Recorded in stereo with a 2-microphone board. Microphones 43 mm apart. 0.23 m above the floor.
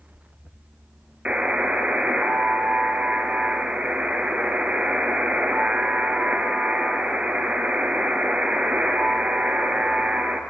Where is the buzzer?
30° right (ahead or behind), 3.5 m.